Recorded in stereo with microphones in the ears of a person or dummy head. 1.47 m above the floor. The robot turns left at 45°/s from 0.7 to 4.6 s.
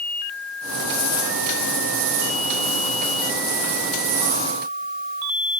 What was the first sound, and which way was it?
Only background noise.